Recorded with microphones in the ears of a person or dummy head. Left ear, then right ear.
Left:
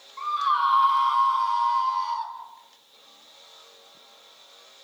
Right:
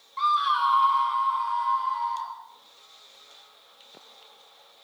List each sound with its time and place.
0.2 s a scream: 50° right (ahead or behind), 1.0 m; by 2.3 s 45° left (ahead or behind), 3 m